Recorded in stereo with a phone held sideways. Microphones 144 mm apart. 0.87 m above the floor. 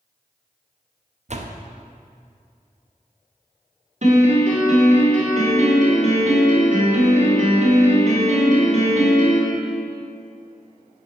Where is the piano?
55° right (ahead or behind), 2 m.